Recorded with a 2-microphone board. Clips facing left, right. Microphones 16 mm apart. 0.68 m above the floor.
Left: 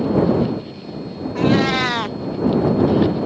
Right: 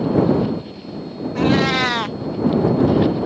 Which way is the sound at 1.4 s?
5° right (ahead or behind).